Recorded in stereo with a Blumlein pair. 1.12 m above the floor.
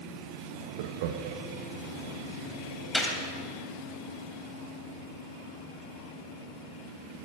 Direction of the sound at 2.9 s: 5° left.